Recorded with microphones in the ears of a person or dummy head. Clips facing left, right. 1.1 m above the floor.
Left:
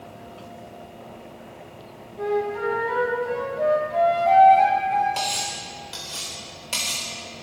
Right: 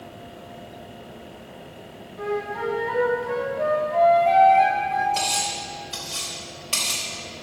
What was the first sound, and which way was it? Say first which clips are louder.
A flute: left 3 dB; 15° left (ahead or behind).